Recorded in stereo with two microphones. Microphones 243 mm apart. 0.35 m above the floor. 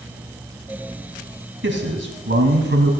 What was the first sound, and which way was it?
A man speaking, 50° right (ahead or behind).